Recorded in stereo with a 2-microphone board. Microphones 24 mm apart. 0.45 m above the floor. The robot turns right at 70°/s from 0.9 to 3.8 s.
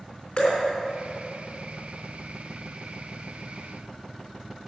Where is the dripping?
45° left (ahead or behind), 3.5 m.